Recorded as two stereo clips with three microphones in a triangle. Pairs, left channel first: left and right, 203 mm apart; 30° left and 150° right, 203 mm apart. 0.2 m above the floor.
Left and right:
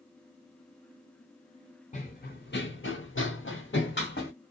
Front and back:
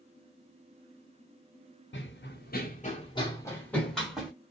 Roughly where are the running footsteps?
Ahead left.